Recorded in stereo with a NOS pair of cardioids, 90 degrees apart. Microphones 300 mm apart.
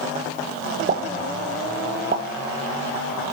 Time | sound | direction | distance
0.9 | a pop | 30° right | 2.0 m